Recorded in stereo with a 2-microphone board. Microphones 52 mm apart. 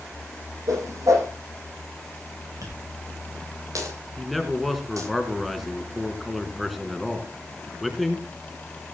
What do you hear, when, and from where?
0.7 s a whoosh: 80° right, 9.5 m
2.6 s a dropped coin: 90° right, 9 m
4.2 s a man speaking: centre (ahead or behind), 3 m